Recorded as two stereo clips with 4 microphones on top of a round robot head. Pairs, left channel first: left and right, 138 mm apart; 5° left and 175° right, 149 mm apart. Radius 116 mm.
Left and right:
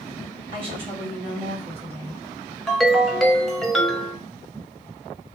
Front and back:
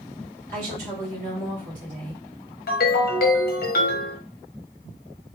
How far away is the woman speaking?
About 1.7 m.